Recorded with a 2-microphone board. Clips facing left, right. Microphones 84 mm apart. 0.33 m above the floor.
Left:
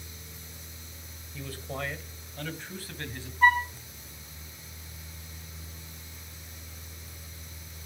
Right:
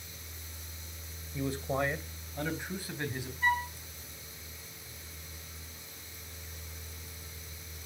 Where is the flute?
65° left (ahead or behind), 2.5 m.